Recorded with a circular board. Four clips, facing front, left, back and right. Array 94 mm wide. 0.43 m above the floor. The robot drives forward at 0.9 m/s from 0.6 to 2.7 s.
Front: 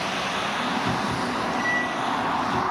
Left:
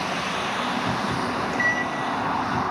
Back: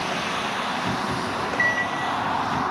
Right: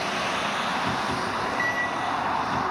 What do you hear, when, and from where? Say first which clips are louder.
1.3 s a microwave: left 2 dB, even; 160° left, 0.7 m; by 2.6 s 175° left, 1.8 m